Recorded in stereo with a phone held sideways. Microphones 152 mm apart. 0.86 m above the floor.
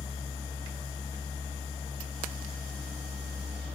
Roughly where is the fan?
Centre.